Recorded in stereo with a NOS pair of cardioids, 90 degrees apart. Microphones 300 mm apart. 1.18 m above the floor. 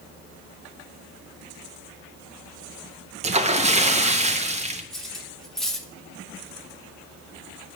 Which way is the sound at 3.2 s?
20° right.